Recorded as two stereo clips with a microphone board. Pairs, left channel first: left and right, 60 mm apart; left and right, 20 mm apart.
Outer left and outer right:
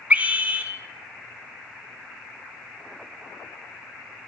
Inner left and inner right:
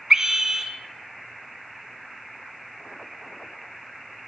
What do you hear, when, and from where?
0.1 s a scream: 25° right (ahead or behind), 1.2 m